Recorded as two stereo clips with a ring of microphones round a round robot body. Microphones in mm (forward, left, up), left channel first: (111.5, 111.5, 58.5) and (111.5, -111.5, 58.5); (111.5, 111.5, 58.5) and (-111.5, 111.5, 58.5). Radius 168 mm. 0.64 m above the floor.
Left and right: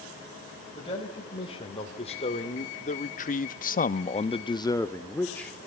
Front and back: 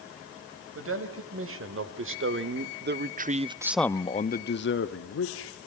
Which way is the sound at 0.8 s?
165° left.